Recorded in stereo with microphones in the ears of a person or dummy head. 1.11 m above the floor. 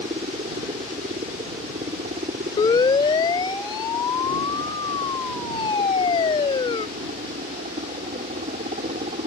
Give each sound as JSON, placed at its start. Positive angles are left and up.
{"t": 0.0, "sound": "a helicopter", "side_deg": -25}
{"t": 2.6, "sound": "a siren", "side_deg": 25}